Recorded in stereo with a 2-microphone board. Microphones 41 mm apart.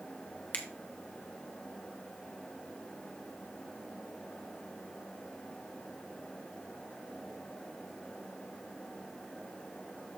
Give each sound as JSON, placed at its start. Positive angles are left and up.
{"t": 0.5, "sound": "a finger snap", "side_deg": 35, "distance_m": 1.2}